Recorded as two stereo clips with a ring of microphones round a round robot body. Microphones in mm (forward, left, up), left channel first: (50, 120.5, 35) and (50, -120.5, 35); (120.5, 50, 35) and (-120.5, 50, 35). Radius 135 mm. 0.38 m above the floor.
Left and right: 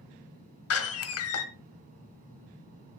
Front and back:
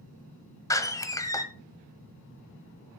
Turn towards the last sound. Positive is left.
turn(degrees=75)